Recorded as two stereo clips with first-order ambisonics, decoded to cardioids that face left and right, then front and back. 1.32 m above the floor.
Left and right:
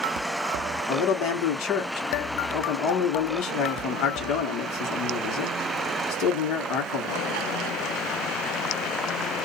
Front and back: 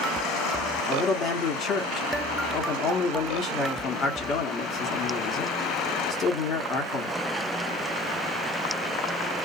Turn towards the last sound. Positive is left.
turn(degrees=55)